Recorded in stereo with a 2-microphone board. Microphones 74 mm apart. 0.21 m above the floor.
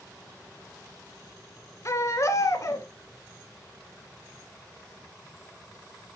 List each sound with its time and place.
1.9 s a baby crying: 45° left (ahead or behind), 1.0 m